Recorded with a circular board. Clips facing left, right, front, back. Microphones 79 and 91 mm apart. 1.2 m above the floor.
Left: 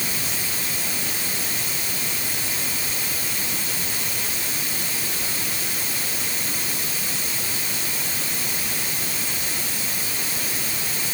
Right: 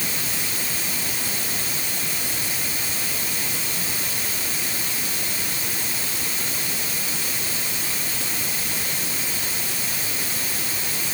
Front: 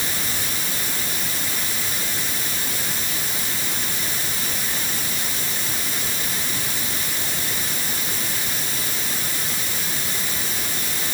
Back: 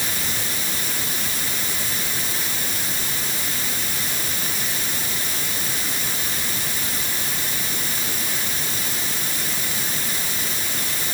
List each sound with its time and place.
Only background noise.